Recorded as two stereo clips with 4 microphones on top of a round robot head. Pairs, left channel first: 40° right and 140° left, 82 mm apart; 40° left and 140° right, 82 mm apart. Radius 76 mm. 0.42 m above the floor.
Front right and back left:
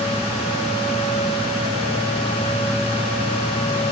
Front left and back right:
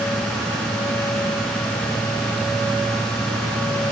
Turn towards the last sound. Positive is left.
No sound to turn to.